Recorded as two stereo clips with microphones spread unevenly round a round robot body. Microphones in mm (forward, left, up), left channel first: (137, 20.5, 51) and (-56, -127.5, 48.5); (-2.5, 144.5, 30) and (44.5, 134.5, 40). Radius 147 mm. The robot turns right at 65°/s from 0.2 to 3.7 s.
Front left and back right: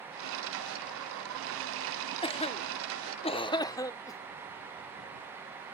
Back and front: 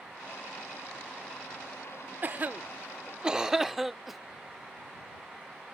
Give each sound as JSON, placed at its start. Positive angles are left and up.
{"t": 2.2, "sound": "a cough", "azimuth_deg": 0}